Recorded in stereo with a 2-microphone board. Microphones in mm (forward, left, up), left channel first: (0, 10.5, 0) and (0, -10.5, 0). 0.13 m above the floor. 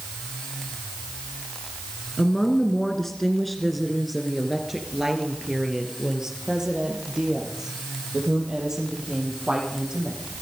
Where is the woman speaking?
30° left (ahead or behind), 1.7 m; by 10.2 s 35° right (ahead or behind), 5.5 m.